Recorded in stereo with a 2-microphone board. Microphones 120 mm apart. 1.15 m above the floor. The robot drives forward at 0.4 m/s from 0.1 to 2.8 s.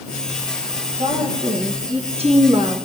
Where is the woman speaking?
70° right (ahead or behind), 1.2 m; by 2.8 s 50° right (ahead or behind), 1.4 m.